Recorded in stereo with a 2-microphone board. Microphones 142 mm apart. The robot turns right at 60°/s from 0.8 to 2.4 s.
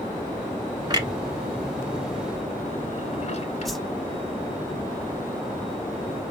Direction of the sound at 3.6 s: Centre (ahead or behind).